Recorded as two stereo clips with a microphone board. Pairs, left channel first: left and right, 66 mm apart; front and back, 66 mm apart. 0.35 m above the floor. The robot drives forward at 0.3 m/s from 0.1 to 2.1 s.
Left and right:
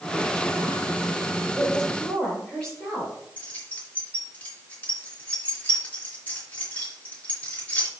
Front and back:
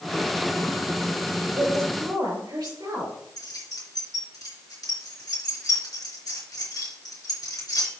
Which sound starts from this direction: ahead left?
Keys jangling, at 3.4 s.